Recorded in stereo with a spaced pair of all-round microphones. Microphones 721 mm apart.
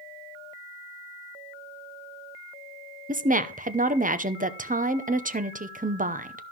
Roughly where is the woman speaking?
Centre.